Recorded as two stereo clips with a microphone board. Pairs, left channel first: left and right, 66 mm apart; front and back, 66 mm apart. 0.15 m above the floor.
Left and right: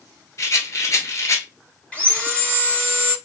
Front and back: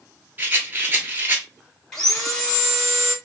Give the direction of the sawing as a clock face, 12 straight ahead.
10 o'clock.